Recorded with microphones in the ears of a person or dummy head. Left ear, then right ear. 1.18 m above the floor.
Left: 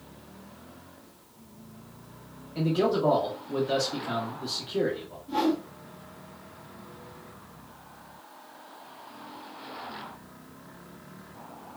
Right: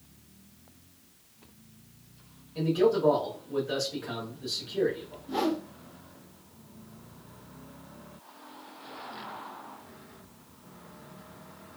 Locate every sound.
2.5 s a man speaking: 10° left (ahead or behind), 1.3 m
5.3 s a whoosh: 25° right (ahead or behind), 1.1 m